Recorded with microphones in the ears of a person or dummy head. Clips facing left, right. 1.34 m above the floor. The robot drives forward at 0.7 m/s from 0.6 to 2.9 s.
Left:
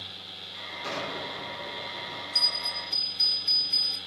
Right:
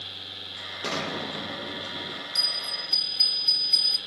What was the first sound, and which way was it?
An explosion, 65° right (ahead or behind).